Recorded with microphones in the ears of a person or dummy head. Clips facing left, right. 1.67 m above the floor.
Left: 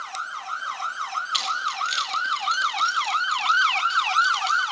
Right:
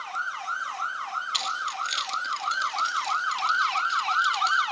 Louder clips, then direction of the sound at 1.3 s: Left 4 dB; 5° left (ahead or behind).